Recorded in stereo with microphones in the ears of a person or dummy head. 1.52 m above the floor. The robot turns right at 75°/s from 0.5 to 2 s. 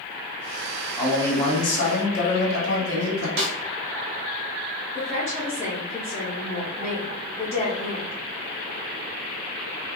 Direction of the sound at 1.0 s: 10° right.